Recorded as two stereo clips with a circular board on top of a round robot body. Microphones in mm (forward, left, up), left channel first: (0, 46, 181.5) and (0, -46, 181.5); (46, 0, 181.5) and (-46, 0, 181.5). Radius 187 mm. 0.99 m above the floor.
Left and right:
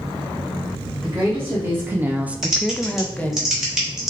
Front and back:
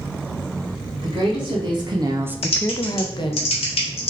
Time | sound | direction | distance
1.0 | a woman speaking | 155° right | 1.2 m
2.4 | typing on a keyboard | 5° right | 0.8 m